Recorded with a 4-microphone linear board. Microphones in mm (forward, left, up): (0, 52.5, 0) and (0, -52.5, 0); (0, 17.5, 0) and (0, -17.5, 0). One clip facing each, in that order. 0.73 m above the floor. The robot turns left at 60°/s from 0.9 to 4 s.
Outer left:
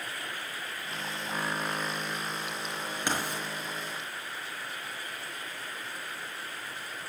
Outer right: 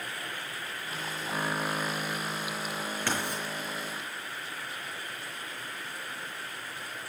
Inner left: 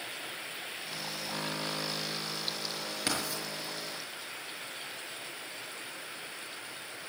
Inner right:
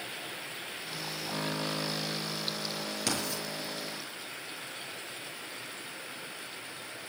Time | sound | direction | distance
3.1 | writing | 20° left (ahead or behind) | 6 m